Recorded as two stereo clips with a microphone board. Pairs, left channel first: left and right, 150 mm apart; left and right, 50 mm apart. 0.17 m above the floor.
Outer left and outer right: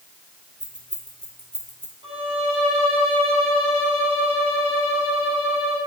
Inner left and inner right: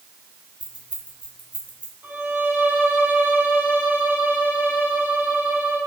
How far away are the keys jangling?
About 3 m.